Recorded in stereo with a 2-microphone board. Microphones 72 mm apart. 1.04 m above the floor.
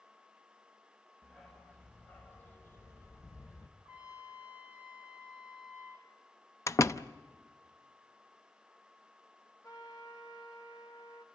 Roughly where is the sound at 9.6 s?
Left.